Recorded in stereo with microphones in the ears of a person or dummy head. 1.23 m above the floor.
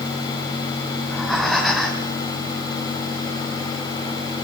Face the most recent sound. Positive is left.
turn(degrees=0)  # may be behind; listen again after turning